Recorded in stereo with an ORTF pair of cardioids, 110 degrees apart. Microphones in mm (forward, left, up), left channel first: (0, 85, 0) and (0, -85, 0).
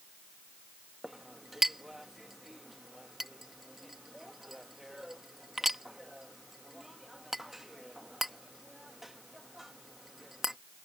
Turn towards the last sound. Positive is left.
turn(degrees=0)